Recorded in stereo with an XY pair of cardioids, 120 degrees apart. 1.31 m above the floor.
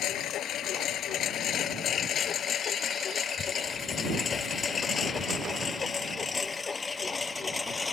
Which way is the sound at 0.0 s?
65° left.